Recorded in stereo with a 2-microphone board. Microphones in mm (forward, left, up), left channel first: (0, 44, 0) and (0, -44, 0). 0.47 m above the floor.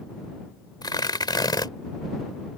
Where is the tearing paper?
50° left (ahead or behind).